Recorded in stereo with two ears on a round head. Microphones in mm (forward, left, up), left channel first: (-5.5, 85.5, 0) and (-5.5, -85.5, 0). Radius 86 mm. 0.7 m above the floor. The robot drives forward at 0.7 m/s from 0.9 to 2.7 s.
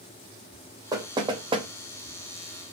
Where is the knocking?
20° right (ahead or behind), 0.9 m; by 1.7 s 30° right (ahead or behind), 0.6 m.